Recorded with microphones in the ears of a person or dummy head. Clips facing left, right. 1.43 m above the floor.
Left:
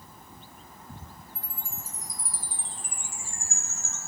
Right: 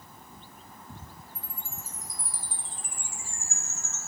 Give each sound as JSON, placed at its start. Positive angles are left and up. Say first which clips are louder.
{"t": 1.4, "sound": "a chime", "louder": "left 1 dB", "side_deg": 60, "distance_m": 1.3}